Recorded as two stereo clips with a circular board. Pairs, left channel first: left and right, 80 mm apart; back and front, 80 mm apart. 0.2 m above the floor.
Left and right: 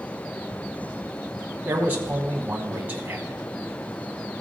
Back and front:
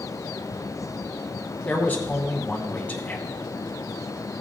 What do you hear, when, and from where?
1.6 s a man speaking: 130° right, 1.1 m